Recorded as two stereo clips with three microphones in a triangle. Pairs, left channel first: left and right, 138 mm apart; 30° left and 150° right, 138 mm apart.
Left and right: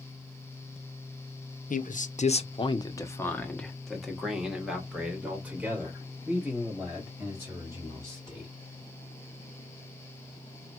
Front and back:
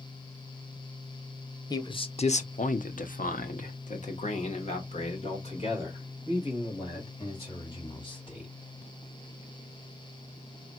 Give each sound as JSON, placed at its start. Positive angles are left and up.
{"t": 1.7, "sound": "a man speaking", "azimuth_deg": 90, "distance_m": 0.7}